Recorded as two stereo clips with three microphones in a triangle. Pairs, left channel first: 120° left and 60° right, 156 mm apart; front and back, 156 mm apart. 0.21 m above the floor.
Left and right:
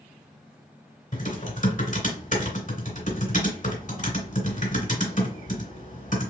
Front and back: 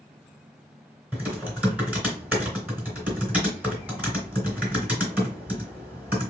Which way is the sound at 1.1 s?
100° left.